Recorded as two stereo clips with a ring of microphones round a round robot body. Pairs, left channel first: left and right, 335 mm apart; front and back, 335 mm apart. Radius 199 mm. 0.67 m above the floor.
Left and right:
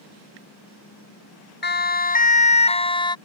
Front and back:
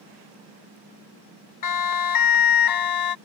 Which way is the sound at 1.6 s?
30° left.